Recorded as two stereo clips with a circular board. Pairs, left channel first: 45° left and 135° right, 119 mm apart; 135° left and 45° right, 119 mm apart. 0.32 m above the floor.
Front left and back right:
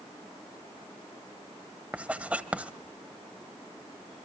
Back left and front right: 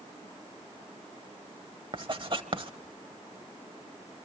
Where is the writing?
60° right, 1.1 m.